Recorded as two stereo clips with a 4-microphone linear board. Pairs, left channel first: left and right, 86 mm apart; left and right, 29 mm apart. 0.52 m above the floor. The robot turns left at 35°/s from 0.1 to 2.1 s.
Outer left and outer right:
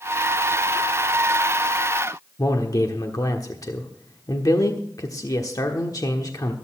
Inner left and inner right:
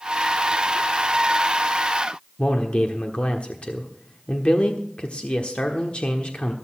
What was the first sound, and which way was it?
A man speaking, 45° left (ahead or behind).